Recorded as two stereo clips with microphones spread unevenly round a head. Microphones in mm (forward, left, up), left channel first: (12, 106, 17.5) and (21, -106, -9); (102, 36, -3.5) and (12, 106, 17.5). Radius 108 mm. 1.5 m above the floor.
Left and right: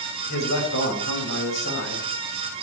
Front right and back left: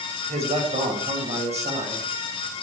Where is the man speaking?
125° left, 7 m.